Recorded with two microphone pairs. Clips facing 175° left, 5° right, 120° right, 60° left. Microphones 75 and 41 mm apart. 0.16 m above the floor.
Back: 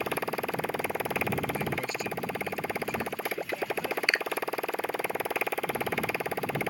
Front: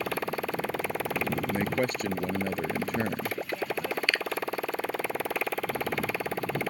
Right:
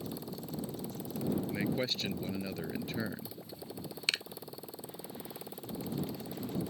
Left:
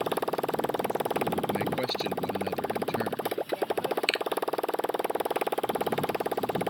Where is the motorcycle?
85° left.